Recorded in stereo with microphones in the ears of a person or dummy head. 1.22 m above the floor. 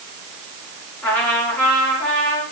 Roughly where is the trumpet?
Centre.